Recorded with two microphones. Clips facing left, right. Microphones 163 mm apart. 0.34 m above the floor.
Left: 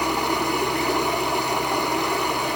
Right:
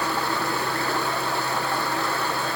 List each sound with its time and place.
0.0 s running water: 15° left (ahead or behind), 0.9 m